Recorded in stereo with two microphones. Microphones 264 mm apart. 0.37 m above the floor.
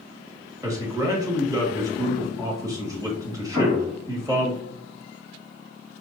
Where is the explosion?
30° right (ahead or behind), 1.8 m.